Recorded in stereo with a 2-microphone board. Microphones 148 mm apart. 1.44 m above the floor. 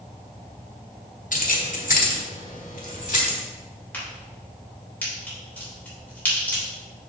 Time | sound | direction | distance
1.3 | keys jangling | 60° left (ahead or behind) | 1.1 m
3.9 | a crack | 10° left (ahead or behind) | 3.5 m